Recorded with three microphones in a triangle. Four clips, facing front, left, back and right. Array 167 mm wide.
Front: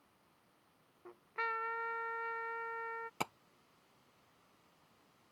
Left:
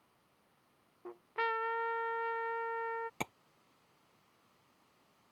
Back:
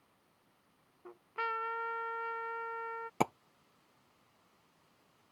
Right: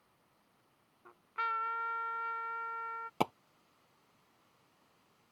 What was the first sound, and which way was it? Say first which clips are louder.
A trumpet: left 1 dB, back 2 dB; 95° left.